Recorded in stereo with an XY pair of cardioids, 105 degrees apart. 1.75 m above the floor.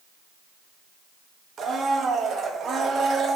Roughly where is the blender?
Ahead right.